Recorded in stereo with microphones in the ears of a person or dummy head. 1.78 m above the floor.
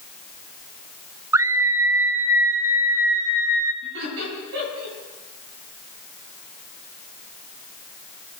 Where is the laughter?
70° right (ahead or behind), 10 m.